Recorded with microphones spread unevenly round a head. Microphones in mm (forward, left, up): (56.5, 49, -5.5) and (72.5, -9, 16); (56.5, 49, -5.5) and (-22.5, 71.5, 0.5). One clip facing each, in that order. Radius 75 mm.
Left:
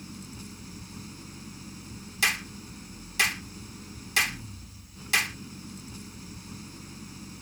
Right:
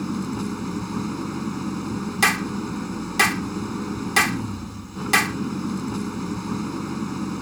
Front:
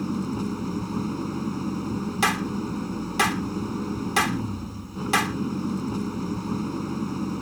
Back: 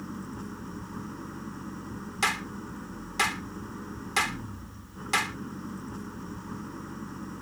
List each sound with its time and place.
0.0 s an engine running: 70° right
2.2 s a clap: 80° right